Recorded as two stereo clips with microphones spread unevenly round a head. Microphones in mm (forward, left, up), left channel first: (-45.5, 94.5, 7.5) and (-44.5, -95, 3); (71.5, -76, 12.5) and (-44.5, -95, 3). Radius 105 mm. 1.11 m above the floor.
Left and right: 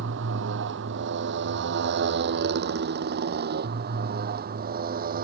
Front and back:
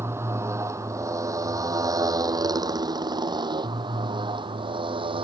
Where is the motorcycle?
105° right; by 5.2 s 130° right.